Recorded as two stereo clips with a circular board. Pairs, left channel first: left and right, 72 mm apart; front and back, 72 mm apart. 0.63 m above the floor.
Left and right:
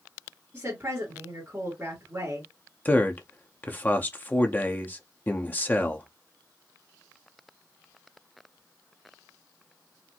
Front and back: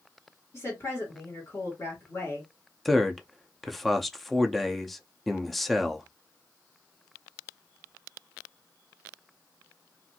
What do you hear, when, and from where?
0.5 s a woman speaking: 40° right, 2 m
2.9 s a man speaking: 85° left, 0.5 m